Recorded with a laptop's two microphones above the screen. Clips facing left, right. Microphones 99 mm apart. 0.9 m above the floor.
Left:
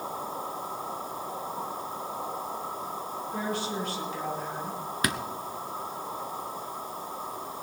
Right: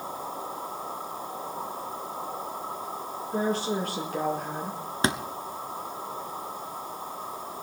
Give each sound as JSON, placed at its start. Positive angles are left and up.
{"t": 3.3, "sound": "a woman speaking", "side_deg": -30, "distance_m": 1.7}
{"t": 5.0, "sound": "a thud", "side_deg": -25, "distance_m": 0.9}